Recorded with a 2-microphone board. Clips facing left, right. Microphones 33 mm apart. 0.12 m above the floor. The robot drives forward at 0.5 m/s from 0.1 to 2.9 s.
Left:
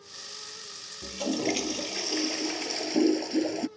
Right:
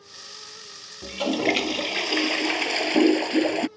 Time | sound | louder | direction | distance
1.0 | a toilet flushing | right 6 dB | 40° right (ahead or behind) | ?